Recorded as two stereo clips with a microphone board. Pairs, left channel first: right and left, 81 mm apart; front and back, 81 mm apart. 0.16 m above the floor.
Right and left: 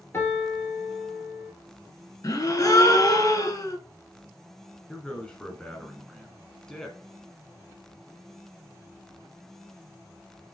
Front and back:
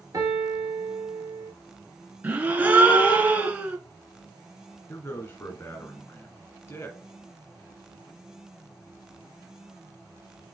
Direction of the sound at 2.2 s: 115° right.